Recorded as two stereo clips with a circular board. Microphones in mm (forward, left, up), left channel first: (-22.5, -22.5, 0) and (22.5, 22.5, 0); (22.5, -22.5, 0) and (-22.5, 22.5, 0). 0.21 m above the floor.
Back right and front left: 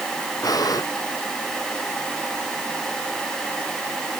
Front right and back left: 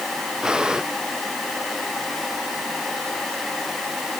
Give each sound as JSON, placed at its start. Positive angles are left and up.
{"t": 0.4, "sound": "breathing", "azimuth_deg": -145}